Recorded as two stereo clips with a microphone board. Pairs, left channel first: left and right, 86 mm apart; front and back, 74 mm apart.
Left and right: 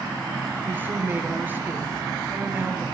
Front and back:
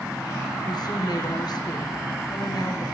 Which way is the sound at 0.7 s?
20° right.